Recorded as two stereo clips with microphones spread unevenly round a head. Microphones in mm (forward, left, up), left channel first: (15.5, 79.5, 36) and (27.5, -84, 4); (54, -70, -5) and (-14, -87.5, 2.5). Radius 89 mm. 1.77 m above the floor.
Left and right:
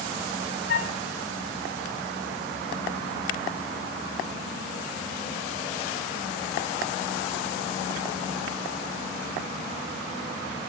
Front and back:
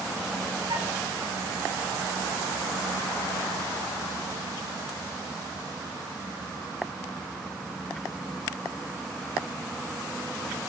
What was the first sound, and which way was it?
A flute, 130° left.